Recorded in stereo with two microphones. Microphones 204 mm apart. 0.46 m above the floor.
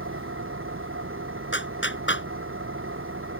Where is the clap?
65° left (ahead or behind).